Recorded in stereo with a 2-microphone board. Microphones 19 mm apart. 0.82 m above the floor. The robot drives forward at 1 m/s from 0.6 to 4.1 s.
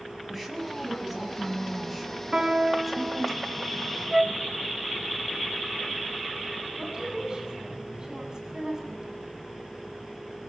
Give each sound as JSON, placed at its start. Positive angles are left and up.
{"t": 0.3, "sound": "a woman speaking", "side_deg": -5, "distance_m": 8.0}
{"t": 2.3, "sound": "a piano", "side_deg": -35, "distance_m": 3.5}
{"t": 4.1, "sound": "a flute", "side_deg": -15, "distance_m": 0.8}
{"t": 6.7, "sound": "a woman speaking", "side_deg": -40, "distance_m": 7.5}